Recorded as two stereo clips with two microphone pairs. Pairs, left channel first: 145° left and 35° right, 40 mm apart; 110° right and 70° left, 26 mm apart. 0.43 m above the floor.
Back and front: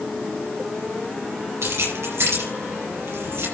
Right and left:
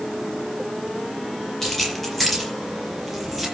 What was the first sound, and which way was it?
Keys jangling, 35° right.